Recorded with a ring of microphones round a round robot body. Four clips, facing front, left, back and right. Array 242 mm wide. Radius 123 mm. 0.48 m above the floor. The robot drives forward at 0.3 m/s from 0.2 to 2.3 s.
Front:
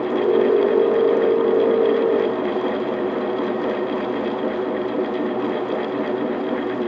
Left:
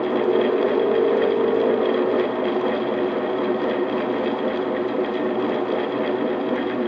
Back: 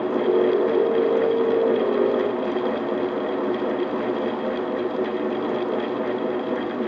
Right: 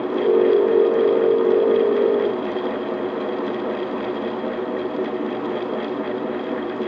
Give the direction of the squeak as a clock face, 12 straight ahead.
I don't hear a squeak.